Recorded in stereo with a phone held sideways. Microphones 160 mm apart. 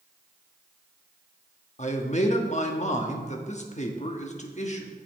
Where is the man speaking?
45° left (ahead or behind), 1.1 m.